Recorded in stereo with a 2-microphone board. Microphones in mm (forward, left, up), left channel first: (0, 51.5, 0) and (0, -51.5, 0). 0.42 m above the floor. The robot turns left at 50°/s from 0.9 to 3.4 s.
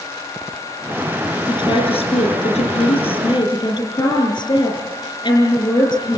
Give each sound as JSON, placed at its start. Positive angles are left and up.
{"t": 1.5, "sound": "a woman speaking", "azimuth_deg": 135, "distance_m": 6.5}